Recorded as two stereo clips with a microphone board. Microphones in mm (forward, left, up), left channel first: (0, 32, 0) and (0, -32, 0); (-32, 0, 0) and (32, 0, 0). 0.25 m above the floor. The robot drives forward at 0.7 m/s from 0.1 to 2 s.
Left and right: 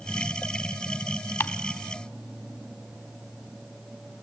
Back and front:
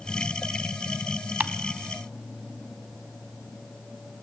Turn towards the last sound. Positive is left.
turn(degrees=105)